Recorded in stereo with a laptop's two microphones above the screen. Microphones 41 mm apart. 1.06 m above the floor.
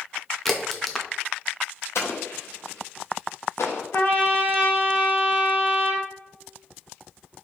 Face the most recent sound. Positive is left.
turn(degrees=75)  # may be behind; listen again after turning